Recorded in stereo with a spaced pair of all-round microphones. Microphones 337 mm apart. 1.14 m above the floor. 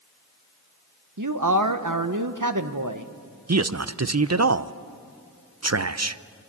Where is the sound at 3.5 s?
45° right (ahead or behind), 0.6 m.